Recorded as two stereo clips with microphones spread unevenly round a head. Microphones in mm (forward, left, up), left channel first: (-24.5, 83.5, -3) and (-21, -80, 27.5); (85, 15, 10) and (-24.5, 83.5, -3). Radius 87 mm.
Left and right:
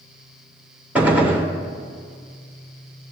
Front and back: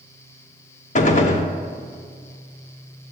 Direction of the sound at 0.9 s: 10° right.